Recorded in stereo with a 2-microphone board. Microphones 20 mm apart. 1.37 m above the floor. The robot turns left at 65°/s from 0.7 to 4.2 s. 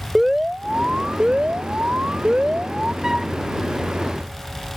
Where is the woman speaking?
I don't hear a woman speaking.